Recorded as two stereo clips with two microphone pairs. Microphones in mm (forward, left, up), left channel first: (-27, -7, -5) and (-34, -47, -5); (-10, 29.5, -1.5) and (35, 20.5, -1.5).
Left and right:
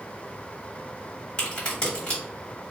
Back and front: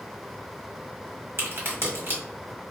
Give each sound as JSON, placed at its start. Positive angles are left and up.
{"t": 1.4, "sound": "a crack", "azimuth_deg": 20, "distance_m": 1.4}